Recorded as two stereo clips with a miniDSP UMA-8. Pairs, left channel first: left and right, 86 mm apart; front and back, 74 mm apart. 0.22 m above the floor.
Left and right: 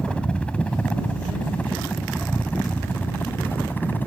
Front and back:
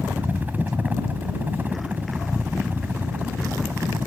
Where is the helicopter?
150° left; by 4.1 s 140° left.